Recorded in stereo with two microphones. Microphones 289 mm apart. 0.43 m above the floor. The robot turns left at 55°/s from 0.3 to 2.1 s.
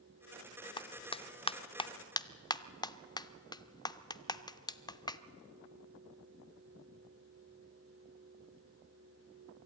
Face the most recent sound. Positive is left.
turn(degrees=15)  # may be behind; listen again after turning